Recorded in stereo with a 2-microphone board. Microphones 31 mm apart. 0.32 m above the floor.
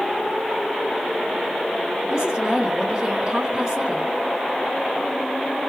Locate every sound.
2.1 s a woman speaking: 25° right (ahead or behind), 1.0 m